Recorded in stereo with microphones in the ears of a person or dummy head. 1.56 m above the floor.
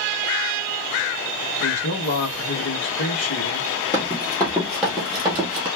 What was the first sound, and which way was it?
A man speaking, 65° left (ahead or behind).